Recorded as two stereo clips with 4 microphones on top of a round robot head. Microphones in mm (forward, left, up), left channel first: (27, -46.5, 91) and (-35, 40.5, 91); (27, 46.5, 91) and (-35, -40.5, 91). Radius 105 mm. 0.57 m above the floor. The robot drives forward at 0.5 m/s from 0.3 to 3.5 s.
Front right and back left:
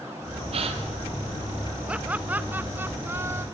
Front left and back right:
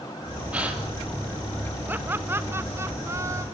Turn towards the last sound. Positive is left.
turn(degrees=-175)